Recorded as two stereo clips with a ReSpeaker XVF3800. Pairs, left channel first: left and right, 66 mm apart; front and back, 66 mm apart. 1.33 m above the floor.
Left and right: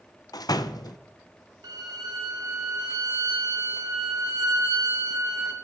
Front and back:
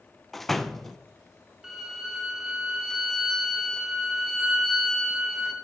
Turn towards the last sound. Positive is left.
turn(degrees=-95)